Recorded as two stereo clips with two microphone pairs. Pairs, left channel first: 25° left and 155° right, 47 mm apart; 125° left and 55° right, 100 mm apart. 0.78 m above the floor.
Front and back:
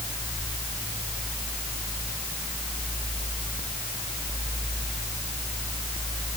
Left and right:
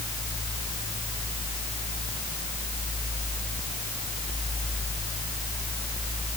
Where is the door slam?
I don't hear a door slam.